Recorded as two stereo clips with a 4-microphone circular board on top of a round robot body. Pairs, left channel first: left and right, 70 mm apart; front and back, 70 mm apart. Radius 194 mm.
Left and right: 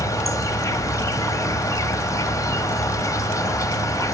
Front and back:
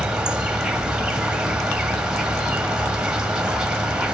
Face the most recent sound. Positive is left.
turn(degrees=100)